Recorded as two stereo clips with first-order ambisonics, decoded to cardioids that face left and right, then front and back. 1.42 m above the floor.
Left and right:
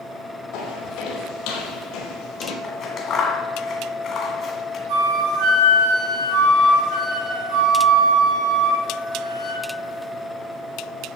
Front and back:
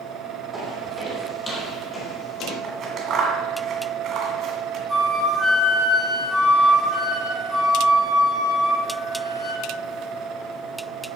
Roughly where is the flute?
Right.